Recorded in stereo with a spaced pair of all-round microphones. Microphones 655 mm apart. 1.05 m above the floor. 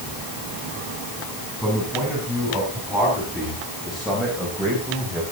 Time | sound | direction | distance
1.6 | a man speaking | centre (ahead or behind) | 8 m